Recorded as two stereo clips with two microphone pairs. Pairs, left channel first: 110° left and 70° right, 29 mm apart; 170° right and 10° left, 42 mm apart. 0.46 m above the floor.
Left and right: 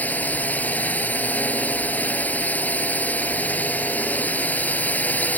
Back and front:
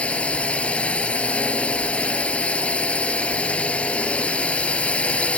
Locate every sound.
0.0 s a drone: 130° left